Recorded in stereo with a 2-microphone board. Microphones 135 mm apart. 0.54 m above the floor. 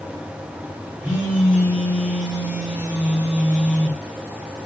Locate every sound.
1.0 s a phone buzzing: 10° right (ahead or behind), 2.5 m